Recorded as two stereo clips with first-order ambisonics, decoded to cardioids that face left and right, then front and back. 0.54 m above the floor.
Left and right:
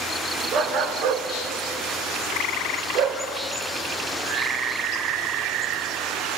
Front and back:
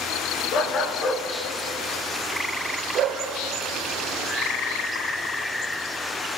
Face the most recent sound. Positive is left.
turn(degrees=-125)